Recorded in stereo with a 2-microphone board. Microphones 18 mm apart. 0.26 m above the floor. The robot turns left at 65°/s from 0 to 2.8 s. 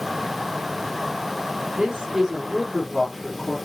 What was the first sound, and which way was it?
A man speaking, 125° right.